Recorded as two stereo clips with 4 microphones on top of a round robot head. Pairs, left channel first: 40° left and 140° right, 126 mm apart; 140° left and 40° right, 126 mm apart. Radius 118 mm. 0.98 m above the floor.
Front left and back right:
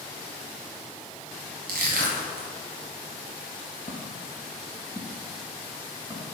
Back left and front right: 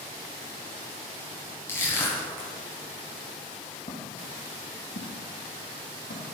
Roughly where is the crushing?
Behind right.